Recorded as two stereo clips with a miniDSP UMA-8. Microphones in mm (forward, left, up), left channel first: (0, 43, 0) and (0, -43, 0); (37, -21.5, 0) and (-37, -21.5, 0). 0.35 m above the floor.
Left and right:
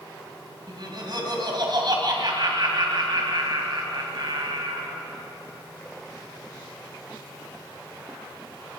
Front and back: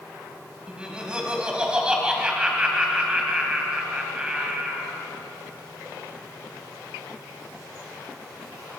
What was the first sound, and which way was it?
Laughter, 105° right.